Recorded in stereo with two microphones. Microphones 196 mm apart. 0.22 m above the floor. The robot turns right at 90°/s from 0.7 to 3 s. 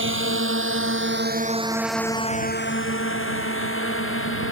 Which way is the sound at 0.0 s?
75° right (ahead or behind).